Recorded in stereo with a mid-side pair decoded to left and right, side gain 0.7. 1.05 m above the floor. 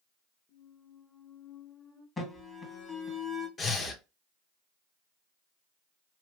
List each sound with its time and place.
0.5 s a squeak: 15° left, 0.8 m
2.2 s an alarm: 25° left, 1.3 m
3.6 s breathing: 30° left, 0.7 m